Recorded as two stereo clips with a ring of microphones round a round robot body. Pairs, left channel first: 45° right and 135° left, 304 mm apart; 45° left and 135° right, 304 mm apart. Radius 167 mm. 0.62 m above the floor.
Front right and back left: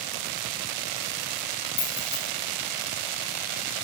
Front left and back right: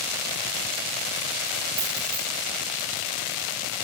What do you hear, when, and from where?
1.8 s keys jangling: 85° right, 4.5 m